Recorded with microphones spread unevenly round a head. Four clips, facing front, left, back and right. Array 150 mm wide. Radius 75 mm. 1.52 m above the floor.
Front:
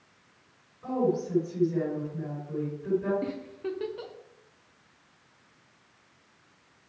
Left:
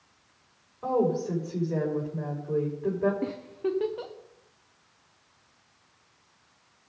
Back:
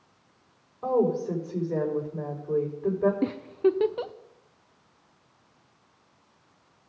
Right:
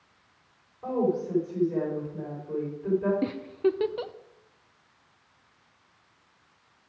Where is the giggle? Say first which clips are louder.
Right 4 dB, back 10 dB; 165° right, 0.6 m.